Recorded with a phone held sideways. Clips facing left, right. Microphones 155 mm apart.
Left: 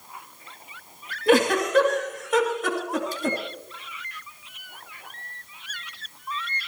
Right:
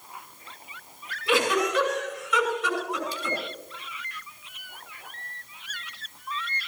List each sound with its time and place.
1.3 s a giggle: 50° left (ahead or behind), 2.5 m